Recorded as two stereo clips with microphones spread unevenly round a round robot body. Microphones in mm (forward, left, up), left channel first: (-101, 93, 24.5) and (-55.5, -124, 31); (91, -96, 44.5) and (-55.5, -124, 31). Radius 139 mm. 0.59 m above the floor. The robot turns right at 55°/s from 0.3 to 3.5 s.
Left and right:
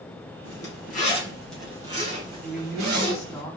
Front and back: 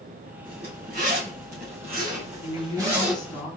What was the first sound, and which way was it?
A zipper, 130° left.